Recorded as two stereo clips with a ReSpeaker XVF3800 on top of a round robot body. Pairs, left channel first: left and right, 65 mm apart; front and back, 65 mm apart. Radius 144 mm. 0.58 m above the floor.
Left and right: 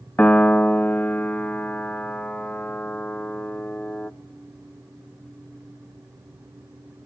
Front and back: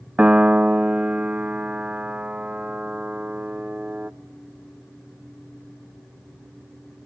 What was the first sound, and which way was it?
A piano, 130° left.